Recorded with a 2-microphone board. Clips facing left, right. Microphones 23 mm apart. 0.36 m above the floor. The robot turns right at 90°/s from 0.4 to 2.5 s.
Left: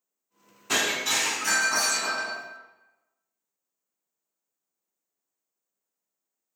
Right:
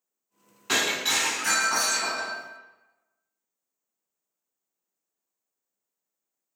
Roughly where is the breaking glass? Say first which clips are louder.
Right 1 dB; behind right.